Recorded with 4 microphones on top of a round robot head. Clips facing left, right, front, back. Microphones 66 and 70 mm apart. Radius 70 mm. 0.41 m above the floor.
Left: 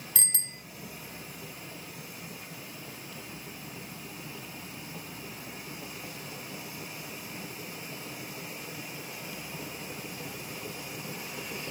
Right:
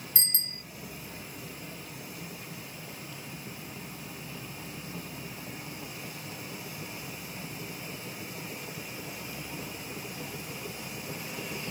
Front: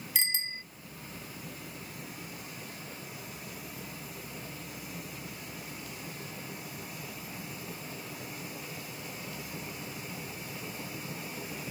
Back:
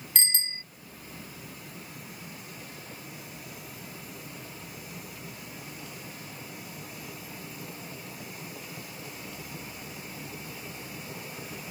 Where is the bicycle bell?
80° left.